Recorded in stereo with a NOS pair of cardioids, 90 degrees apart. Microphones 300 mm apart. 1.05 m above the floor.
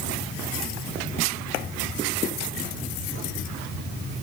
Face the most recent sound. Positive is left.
No sound to turn to.